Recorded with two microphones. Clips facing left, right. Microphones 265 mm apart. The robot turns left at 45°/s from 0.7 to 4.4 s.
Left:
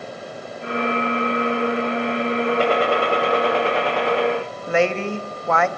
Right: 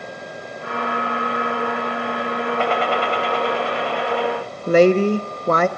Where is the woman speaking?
40° right (ahead or behind), 0.9 m.